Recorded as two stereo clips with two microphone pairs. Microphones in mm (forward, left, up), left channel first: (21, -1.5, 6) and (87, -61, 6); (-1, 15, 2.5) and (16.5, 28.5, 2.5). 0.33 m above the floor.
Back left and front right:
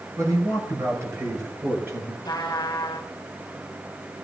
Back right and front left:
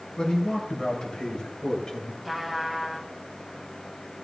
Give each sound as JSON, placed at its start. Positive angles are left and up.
{"t": 0.2, "sound": "a man speaking", "azimuth_deg": -95, "distance_m": 6.0}
{"t": 2.2, "sound": "a trumpet", "azimuth_deg": 120, "distance_m": 1.5}